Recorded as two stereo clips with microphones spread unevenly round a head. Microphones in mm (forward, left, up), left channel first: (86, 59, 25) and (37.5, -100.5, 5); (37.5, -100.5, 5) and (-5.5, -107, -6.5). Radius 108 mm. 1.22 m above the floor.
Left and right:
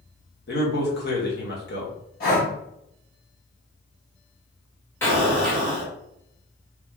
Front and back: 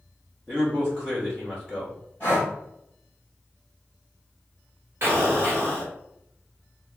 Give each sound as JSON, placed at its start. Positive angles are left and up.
{"t": 0.5, "sound": "a man speaking", "azimuth_deg": 110, "distance_m": 1.3}
{"t": 2.2, "sound": "breathing", "azimuth_deg": 65, "distance_m": 1.6}
{"t": 5.0, "sound": "an explosion", "azimuth_deg": 155, "distance_m": 0.9}